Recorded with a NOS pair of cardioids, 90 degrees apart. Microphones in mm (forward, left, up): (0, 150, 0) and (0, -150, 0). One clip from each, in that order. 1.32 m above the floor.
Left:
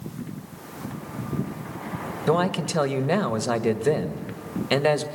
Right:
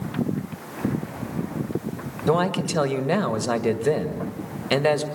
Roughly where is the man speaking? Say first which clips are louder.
Right 1 dB; ahead.